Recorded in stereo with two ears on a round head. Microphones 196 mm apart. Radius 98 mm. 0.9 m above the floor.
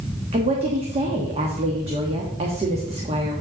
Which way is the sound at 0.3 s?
30° right (ahead or behind).